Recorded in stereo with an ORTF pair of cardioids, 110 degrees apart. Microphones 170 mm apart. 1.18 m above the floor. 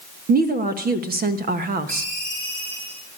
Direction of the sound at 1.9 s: 40° right.